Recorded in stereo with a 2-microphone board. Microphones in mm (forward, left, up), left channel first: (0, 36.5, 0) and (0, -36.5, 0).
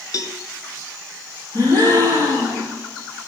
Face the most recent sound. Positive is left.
turn(degrees=-65)  # may be behind; listen again after turning